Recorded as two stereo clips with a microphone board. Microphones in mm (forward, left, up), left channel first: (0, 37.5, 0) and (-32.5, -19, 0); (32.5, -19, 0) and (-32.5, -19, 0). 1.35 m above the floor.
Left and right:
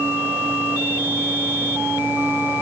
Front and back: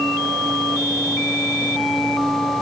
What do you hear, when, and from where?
Only background noise.